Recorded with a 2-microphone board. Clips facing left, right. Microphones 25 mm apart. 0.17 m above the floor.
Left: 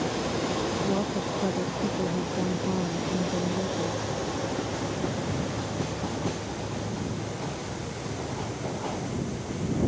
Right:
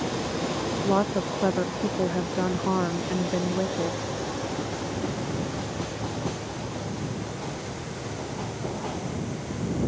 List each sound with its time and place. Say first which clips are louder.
0.8 s a woman speaking: right 4 dB; 85° right